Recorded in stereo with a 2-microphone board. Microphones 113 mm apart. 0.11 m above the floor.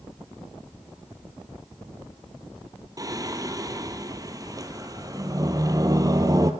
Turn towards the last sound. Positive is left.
turn(degrees=-30)  # may be behind; listen again after turning